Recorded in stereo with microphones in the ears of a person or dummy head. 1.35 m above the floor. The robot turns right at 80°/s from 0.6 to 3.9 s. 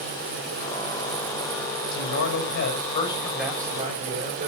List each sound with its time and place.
1.9 s a man speaking: 70° left, 6.5 m; by 4.5 s 130° right, 6.5 m